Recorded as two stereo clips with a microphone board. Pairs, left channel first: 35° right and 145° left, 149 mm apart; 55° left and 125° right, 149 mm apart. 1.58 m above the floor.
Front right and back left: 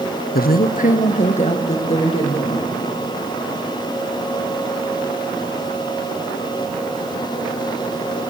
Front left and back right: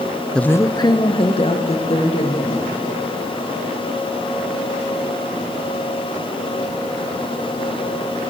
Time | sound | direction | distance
0.3 | a woman speaking | 30° right | 0.6 m